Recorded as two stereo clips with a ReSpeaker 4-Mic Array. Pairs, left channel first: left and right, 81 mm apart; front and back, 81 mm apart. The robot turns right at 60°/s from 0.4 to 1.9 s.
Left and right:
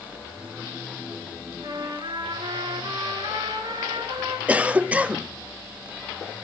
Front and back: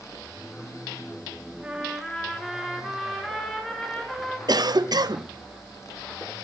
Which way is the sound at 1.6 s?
105° right.